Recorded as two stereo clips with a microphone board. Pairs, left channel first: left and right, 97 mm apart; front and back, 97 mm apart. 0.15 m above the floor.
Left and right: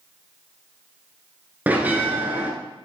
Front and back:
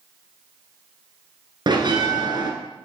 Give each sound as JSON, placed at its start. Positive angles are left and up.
{"t": 1.7, "sound": "a bell", "azimuth_deg": -160, "distance_m": 1.4}